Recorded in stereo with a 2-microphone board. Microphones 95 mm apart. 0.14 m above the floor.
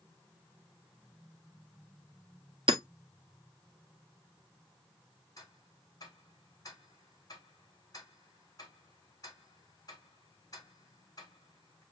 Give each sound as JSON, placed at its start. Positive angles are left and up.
{"t": 2.7, "sound": "hammering", "side_deg": -65, "distance_m": 1.2}
{"t": 5.4, "sound": "ticking", "side_deg": 40, "distance_m": 5.5}